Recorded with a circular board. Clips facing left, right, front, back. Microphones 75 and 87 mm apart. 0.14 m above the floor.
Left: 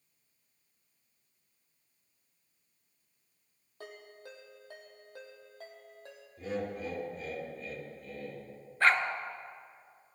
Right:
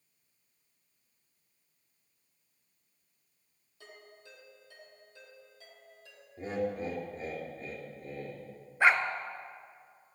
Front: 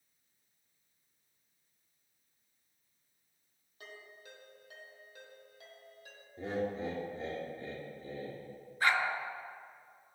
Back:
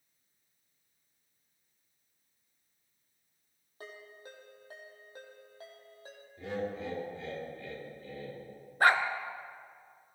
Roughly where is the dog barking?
Behind.